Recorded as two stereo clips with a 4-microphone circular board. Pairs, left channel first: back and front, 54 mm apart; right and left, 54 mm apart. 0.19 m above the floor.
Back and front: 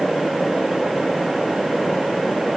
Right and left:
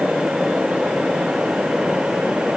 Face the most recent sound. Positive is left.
No sound to turn to.